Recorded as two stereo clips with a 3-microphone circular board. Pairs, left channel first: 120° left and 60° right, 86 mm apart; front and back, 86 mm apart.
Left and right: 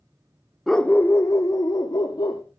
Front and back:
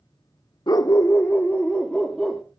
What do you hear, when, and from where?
0.7 s a dog barking: 30° left, 0.6 m; by 2.4 s 90° left, 1.5 m